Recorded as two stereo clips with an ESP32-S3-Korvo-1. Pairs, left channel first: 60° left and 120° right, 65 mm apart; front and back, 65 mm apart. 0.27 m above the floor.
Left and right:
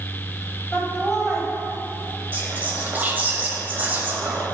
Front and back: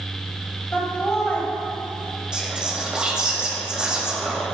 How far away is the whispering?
About 1.1 m.